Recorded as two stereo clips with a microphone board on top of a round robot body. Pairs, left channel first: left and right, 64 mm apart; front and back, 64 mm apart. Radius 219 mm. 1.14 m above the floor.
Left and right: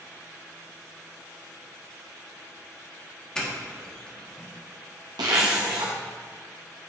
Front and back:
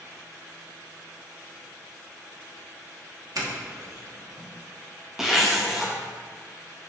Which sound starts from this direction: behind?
A doorbell, at 3.4 s.